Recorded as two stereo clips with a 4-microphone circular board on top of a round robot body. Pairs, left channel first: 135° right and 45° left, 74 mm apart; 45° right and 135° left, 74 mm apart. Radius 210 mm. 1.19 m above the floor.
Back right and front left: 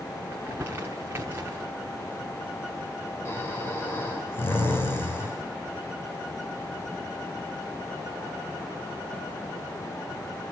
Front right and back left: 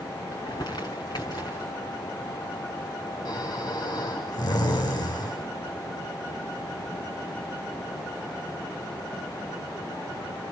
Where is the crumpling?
15° right, 0.9 m.